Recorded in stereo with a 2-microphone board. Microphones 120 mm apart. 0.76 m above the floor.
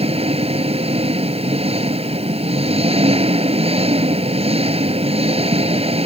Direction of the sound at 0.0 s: 55° right (ahead or behind).